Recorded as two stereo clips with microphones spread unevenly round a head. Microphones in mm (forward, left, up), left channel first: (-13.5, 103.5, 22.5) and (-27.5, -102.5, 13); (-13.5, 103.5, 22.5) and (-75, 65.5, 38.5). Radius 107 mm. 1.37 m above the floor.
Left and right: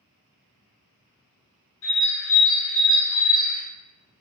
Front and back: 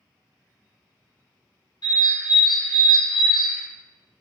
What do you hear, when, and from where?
1.8 s a bird: 50° left, 0.8 m